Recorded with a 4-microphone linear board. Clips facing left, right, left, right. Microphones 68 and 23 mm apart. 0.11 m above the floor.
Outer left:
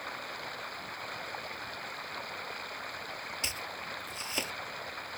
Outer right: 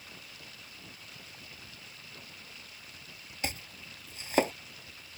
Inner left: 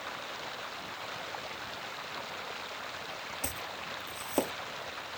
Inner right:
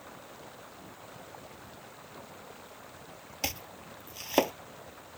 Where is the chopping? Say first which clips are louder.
Outer left 1 dB, inner right 6 dB; 50° right (ahead or behind).